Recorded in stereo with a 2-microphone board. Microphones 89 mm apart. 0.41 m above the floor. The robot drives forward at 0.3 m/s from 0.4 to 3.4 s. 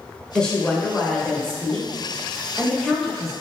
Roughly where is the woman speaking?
Centre.